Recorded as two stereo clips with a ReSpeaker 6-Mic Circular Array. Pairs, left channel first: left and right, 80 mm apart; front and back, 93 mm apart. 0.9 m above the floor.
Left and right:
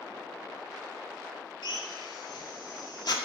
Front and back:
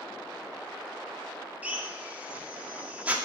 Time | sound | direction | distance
1.6 | a drill | 105° left | 2 m